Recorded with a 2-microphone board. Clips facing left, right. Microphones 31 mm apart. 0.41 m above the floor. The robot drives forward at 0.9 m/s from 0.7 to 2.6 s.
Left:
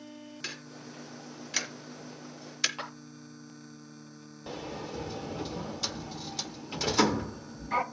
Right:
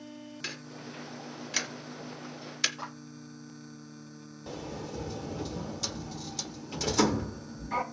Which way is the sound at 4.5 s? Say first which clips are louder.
Left 1 dB; 20° left (ahead or behind).